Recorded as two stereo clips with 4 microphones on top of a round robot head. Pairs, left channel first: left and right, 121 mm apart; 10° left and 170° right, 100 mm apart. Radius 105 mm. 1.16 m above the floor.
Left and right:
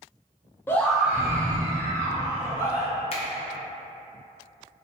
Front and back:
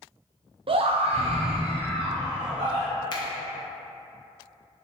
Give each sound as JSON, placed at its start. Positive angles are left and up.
{"t": 0.7, "sound": "a scream", "azimuth_deg": 160, "distance_m": 0.5}
{"t": 3.1, "sound": "a finger snap", "azimuth_deg": 55, "distance_m": 0.5}